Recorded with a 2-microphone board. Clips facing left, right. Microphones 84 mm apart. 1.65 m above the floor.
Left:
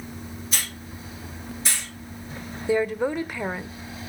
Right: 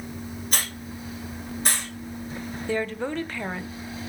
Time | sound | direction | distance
0.5 | a hiss | 55° right (ahead or behind) | 6.5 m
2.7 | a woman speaking | 10° left (ahead or behind) | 1.0 m